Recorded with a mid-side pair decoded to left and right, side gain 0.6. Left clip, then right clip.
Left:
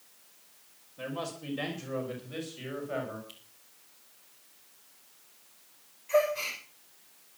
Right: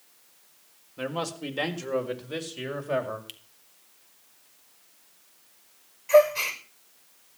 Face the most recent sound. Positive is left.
turn(degrees=-50)